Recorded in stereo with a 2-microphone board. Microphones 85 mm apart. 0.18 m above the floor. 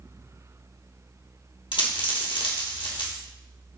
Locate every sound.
1.7 s a dropped coin: 70° left (ahead or behind), 1.1 m